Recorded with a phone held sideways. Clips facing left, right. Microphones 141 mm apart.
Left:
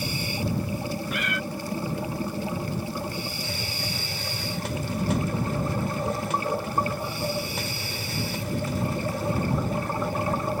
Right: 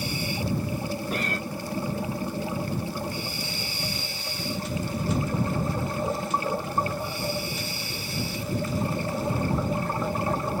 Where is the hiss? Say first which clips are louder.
Left 1 dB; 75° left (ahead or behind).